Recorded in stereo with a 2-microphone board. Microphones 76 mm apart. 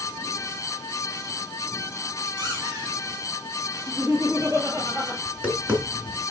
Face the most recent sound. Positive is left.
turn(degrees=-20)  # may be behind; listen again after turning